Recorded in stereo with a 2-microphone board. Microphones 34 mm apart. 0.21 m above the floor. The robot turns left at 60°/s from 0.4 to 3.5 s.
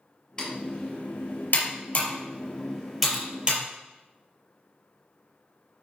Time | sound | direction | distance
0.4 | typing on a keyboard | 15° left (ahead or behind) | 4.5 m